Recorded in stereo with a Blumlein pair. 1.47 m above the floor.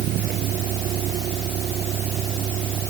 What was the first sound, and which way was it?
A vehicle, 35° right.